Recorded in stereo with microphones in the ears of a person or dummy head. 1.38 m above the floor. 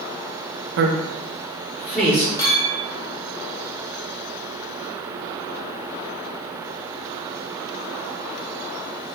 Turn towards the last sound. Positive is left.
turn(degrees=20)  # may be behind; listen again after turning